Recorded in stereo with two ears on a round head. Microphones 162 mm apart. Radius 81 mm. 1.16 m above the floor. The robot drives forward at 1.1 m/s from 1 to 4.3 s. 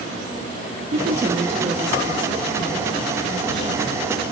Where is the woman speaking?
50° right (ahead or behind), 1.1 m; by 4.0 s 10° right (ahead or behind), 4 m.